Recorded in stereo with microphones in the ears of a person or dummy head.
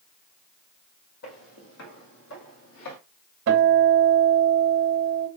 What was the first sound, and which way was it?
Footsteps, 50° left (ahead or behind).